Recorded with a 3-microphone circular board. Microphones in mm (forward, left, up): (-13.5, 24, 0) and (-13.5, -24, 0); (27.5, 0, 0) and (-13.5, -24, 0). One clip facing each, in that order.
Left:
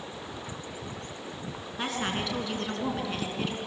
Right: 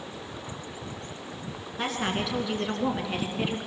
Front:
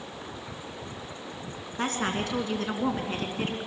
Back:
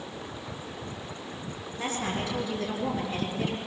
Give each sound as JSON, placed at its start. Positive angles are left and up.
{"t": 1.8, "sound": "a woman speaking", "azimuth_deg": 0, "distance_m": 4.0}